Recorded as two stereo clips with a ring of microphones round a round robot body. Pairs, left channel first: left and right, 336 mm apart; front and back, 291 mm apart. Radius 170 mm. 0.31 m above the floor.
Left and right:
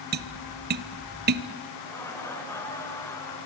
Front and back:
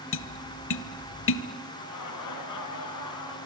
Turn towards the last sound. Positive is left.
turn(degrees=5)